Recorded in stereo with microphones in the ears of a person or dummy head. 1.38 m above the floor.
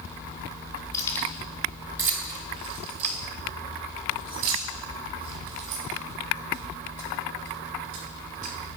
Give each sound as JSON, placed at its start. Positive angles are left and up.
{"t": 0.9, "sound": "keys jangling", "side_deg": 20, "distance_m": 0.9}